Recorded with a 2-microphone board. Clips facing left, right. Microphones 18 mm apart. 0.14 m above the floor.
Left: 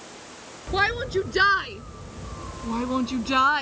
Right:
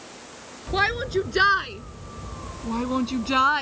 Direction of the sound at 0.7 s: 5° right (ahead or behind).